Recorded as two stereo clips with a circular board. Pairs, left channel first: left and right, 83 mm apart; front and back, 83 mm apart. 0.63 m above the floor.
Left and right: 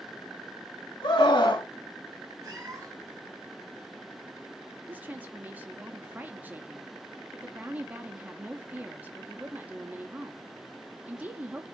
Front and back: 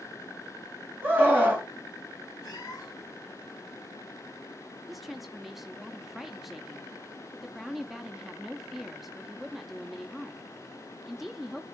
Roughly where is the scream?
Behind left.